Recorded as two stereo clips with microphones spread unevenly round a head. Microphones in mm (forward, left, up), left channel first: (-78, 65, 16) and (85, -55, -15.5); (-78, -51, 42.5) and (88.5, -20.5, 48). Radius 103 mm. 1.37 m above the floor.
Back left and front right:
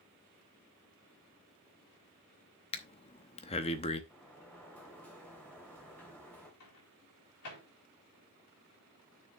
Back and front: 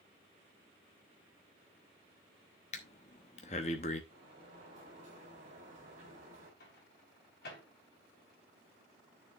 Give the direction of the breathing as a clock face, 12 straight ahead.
7 o'clock.